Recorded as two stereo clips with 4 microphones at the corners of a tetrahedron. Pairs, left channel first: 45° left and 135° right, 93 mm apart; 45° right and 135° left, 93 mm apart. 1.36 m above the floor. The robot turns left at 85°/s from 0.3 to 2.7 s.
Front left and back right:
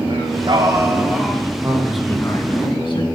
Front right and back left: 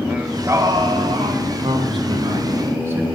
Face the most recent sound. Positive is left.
turn(degrees=75)